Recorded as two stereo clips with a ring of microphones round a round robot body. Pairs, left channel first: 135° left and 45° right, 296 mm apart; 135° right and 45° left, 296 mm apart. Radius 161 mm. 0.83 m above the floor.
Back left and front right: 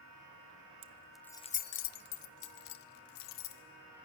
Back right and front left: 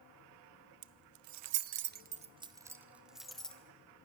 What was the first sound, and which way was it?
Keys jangling, 25° left.